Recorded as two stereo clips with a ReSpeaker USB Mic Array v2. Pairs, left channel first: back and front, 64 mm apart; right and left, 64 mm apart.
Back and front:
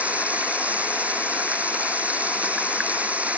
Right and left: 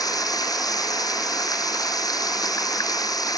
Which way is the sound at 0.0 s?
70° right.